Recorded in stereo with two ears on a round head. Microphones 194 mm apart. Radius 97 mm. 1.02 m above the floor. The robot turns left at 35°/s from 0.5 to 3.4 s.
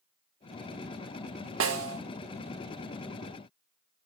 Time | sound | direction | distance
1.6 | a snare drum | 65° right (ahead or behind) | 1.5 m